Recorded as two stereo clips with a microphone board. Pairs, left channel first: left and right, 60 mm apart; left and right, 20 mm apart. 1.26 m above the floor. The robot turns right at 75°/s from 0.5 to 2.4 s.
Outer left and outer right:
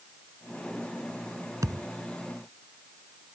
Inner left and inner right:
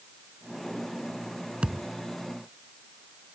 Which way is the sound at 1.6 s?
65° right (ahead or behind).